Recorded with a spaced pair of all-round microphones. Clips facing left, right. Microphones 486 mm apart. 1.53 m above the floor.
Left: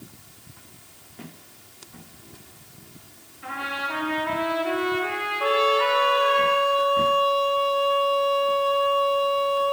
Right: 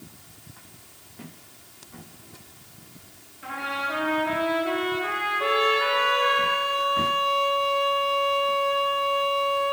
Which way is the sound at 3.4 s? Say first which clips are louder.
Even; 15° left (ahead or behind).